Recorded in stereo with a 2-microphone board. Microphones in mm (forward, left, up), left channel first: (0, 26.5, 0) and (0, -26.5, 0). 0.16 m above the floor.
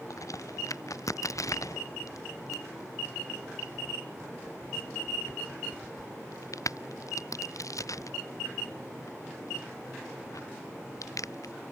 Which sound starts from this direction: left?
A crack, at 0.1 s.